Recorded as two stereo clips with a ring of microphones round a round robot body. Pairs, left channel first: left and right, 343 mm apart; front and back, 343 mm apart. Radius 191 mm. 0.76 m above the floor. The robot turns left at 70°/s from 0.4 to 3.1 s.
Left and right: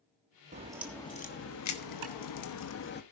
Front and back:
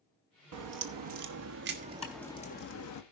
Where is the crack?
155° right, 1.2 m; by 3.0 s 30° left, 1.2 m.